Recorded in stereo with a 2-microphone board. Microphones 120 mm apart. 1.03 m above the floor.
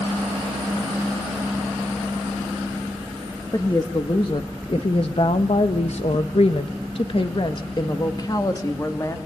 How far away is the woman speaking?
About 1.7 m.